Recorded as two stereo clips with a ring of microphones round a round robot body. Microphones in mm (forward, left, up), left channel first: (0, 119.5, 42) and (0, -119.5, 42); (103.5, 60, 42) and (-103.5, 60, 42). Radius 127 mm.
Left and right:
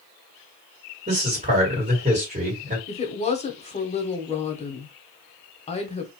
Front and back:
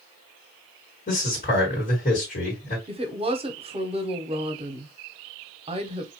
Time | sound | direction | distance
1.1 | a man speaking | 40° right | 1.9 m
2.9 | a woman speaking | 135° left | 0.9 m